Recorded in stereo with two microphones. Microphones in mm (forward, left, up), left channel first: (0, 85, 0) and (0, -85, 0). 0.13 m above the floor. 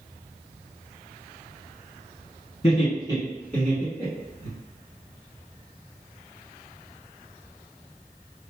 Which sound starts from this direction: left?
Laughter, at 2.6 s.